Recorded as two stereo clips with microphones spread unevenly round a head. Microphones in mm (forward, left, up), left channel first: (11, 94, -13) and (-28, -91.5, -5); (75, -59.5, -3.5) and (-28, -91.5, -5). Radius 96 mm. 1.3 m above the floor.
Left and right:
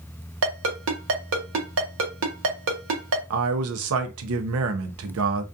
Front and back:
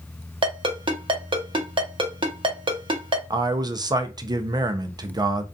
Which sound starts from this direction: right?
A man speaking, at 3.3 s.